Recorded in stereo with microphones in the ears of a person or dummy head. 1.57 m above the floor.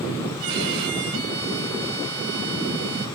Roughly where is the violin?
Right.